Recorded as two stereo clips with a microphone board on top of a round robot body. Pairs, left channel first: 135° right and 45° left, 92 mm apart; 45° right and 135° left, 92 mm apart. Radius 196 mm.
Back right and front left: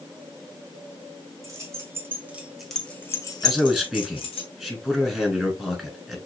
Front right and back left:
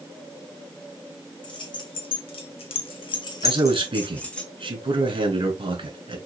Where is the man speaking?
135° left, 2 m.